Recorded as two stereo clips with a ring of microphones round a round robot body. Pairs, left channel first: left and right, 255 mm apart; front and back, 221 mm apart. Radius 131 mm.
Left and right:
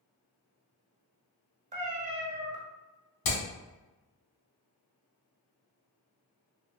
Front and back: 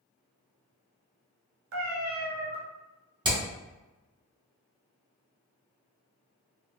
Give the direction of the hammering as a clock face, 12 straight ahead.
8 o'clock.